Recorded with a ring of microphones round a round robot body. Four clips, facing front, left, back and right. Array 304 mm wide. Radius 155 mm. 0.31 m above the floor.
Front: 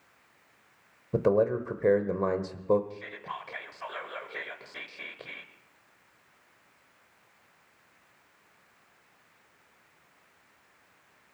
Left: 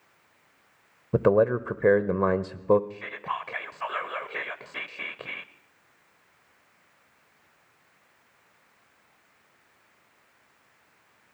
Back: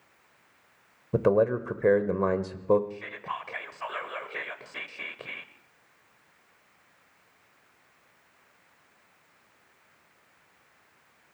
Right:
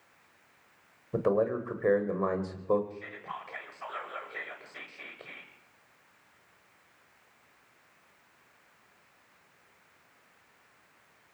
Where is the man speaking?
105° left, 1.3 m.